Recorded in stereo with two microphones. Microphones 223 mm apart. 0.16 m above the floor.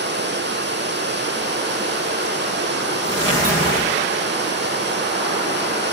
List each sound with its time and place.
0.0 s running water: 50° right (ahead or behind), 1.7 m